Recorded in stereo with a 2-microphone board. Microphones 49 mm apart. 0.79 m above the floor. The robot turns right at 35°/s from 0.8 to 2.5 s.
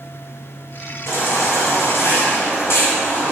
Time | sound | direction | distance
1.1 | a baby crying | 65° left | 2 m